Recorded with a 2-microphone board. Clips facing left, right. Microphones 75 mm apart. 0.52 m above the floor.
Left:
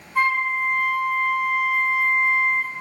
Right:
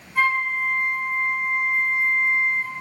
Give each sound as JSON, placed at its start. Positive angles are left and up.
{"t": 0.1, "sound": "a flute", "side_deg": 10, "distance_m": 1.5}